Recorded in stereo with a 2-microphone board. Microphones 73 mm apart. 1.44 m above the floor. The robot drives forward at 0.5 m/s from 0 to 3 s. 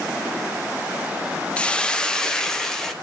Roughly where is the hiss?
Centre.